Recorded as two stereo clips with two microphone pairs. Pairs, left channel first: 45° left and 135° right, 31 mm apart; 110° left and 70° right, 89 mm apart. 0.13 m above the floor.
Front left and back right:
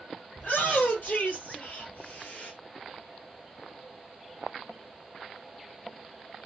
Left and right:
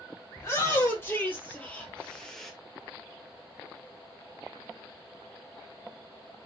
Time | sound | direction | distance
0.3 | a shout | 50° left | 3.5 m